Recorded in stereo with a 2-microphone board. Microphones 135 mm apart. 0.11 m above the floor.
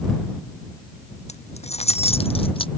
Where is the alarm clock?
No alarm clock in this recording.